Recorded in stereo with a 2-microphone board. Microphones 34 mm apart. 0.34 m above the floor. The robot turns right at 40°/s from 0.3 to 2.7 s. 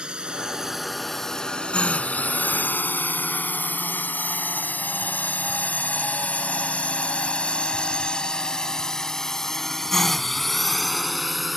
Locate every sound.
0.0 s a drone: 30° right (ahead or behind); by 11.6 s centre (ahead or behind)